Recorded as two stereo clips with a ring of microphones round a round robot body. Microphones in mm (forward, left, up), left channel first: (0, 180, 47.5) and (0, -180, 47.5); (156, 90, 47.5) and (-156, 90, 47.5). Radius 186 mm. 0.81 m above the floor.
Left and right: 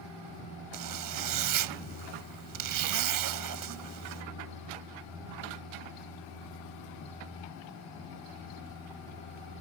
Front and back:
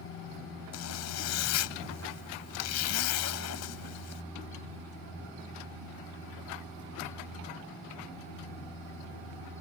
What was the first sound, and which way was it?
A zipper, 50° right.